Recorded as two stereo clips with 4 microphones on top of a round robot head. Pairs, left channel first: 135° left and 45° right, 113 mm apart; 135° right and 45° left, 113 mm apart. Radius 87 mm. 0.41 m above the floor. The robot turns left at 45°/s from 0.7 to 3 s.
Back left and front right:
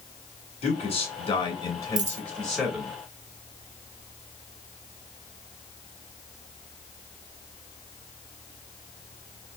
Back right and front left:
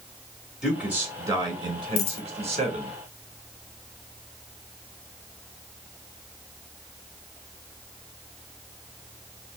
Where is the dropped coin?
100° right, 0.7 m; by 2.2 s 110° right, 0.7 m.